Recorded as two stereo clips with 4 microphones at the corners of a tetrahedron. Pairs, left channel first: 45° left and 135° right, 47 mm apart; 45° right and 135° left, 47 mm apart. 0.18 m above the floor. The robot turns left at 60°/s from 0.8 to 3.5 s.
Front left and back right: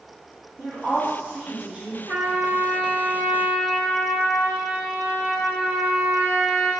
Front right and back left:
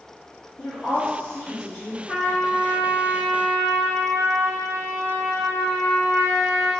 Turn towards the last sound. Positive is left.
turn(degrees=150)